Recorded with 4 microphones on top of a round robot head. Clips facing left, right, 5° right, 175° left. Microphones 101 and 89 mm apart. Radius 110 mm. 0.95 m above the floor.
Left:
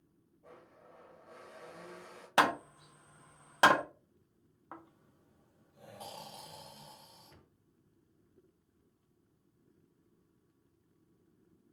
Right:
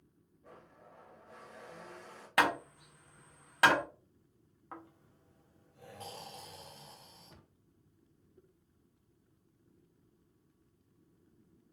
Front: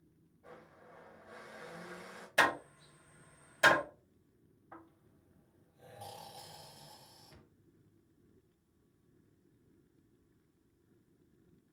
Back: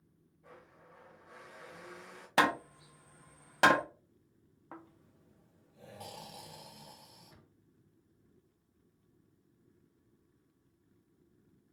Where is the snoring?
165° left, 0.7 m.